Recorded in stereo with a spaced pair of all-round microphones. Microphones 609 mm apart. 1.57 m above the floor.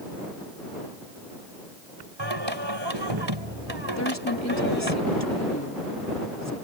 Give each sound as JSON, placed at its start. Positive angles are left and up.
{"t": 2.2, "sound": "singing", "side_deg": -45}
{"t": 4.0, "sound": "a woman speaking", "side_deg": 25}